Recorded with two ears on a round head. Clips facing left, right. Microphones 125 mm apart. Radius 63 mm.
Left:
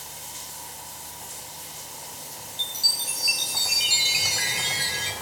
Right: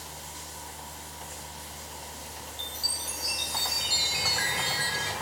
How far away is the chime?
About 1.0 m.